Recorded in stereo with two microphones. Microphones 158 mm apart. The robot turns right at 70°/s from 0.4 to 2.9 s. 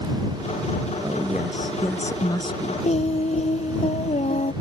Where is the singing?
50° left (ahead or behind); by 4.5 s 45° left (ahead or behind).